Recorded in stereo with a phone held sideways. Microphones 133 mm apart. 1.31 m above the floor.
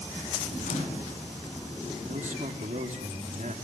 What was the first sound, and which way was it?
A microwave, 75° left (ahead or behind).